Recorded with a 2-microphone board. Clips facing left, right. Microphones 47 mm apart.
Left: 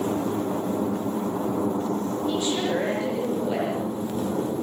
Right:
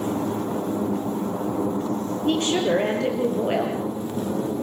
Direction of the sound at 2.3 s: 55° right (ahead or behind).